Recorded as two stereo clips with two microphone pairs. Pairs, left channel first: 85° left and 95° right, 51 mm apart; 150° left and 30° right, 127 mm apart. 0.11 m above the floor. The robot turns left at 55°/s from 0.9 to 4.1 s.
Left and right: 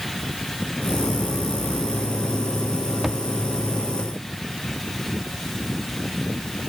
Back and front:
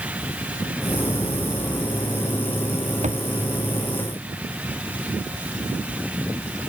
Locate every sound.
3.0 s a thud: 5° right; by 3.2 s 15° right